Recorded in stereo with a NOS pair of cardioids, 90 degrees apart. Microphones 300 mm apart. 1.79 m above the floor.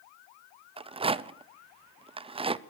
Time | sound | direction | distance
0.8 | a rattle | 20° right | 0.7 m